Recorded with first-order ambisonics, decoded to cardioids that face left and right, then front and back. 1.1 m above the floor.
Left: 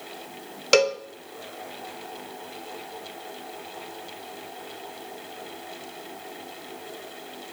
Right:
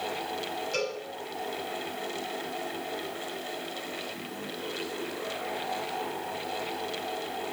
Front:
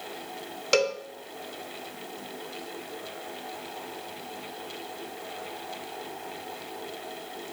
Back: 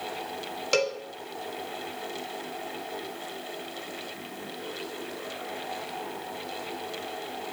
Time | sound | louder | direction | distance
0.7 | a cowbell | left 14 dB, front 2 dB | 85° left | 1.0 m